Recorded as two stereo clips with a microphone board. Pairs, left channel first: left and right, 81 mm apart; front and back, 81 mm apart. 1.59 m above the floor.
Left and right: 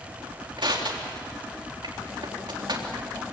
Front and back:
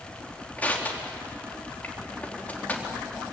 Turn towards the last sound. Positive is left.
turn(degrees=-70)